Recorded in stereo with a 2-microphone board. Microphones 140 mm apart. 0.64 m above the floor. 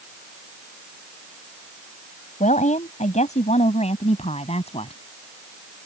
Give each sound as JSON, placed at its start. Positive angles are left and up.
{"t": 2.4, "sound": "a woman speaking", "side_deg": 60}